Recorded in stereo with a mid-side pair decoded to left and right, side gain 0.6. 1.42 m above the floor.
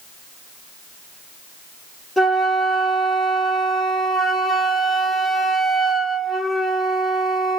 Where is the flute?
5° left, 1.7 m.